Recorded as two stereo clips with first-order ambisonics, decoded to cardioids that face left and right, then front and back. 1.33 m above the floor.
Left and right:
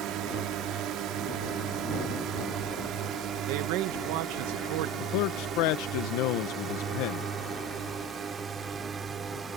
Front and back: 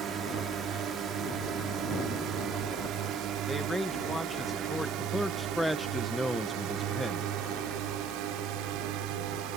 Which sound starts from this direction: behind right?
A drone, at 0.0 s.